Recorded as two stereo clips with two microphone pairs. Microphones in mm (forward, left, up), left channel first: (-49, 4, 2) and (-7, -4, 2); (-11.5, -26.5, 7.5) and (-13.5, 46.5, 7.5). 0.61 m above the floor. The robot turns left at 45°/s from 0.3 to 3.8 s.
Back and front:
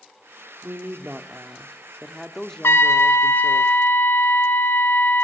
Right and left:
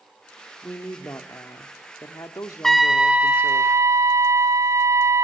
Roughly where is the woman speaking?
Ahead right.